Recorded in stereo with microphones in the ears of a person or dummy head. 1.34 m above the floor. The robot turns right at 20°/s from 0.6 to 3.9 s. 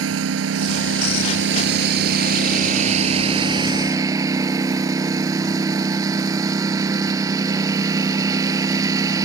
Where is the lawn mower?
85° right; by 9.3 s 20° right.